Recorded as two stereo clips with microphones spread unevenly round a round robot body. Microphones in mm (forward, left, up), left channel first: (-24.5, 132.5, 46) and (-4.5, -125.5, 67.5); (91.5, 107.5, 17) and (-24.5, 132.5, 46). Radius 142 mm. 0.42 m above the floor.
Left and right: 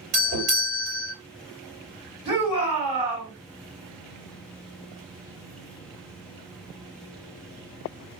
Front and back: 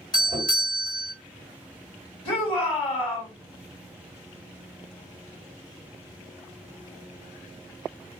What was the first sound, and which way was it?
A doorbell, 35° right.